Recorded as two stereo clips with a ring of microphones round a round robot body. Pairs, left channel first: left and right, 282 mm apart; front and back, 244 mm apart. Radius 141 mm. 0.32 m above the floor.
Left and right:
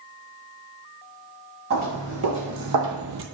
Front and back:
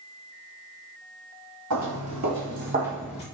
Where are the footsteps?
145° right, 1.9 m; by 3.2 s 55° right, 0.5 m.